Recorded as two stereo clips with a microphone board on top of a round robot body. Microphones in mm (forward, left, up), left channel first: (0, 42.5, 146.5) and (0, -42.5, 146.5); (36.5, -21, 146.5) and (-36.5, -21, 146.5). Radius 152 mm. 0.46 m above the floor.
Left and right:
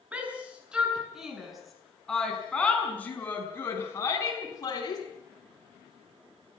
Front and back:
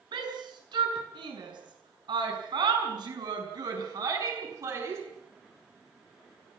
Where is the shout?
165° right, 7.5 m; by 5.0 s 135° left, 6 m.